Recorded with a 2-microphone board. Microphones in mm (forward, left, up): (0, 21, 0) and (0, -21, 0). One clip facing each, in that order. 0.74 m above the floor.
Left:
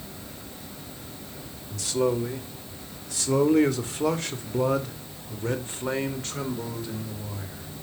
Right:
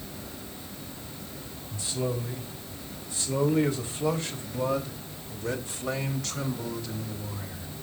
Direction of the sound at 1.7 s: 75° left (ahead or behind).